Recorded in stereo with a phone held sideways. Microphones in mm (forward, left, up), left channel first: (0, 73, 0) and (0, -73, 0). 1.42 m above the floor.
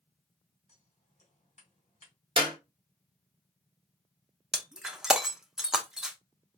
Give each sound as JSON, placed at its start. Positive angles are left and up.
{"t": 0.7, "sound": "scissors", "side_deg": 50, "distance_m": 2.5}
{"t": 2.4, "sound": "a clap", "side_deg": -35, "distance_m": 1.0}
{"t": 4.5, "sound": "breaking glass", "side_deg": -5, "distance_m": 0.5}